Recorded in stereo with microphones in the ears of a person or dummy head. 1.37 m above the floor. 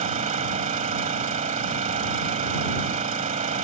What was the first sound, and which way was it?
An engine running, 40° right (ahead or behind).